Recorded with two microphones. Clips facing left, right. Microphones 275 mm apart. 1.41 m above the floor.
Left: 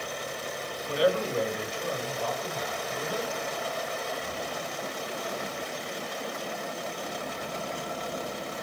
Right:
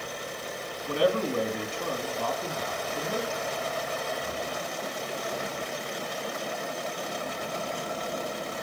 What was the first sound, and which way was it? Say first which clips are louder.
A man speaking: even; 55° right (ahead or behind).